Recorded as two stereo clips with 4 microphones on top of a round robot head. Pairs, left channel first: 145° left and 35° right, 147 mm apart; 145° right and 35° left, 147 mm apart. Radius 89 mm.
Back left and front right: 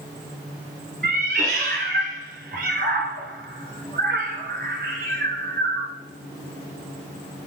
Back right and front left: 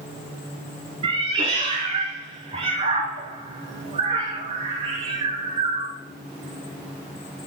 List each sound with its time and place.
1.0 s a cat meowing: 15° right, 1.3 m